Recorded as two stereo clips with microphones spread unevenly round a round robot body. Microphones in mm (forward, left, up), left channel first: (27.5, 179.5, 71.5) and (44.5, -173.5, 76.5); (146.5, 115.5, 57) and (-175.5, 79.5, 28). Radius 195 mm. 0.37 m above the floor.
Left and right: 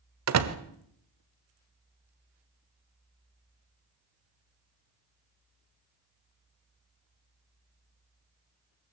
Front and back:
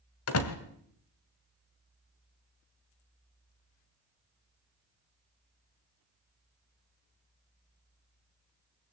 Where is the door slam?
45° right, 1.5 m.